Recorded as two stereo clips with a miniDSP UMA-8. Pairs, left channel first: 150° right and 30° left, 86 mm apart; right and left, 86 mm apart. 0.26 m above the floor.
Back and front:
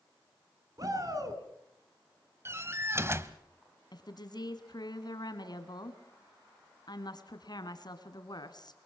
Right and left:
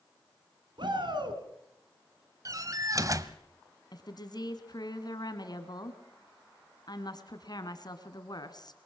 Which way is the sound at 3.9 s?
120° right.